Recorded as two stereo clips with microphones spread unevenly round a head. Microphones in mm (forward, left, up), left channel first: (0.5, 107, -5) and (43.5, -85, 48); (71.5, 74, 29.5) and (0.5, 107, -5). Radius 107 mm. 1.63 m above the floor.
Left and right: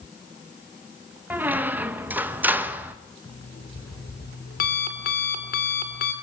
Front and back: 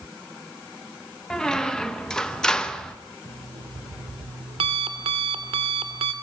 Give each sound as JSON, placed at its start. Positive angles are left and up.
{"t": 1.3, "sound": "a squeak", "azimuth_deg": -30, "distance_m": 0.9}
{"t": 3.2, "sound": "an alarm clock", "azimuth_deg": 155, "distance_m": 2.5}